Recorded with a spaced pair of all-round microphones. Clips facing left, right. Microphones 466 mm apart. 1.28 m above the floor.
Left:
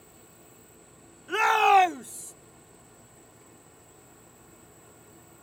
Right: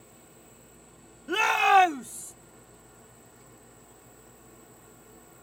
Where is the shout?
60° right (ahead or behind); by 2.3 s 10° right (ahead or behind).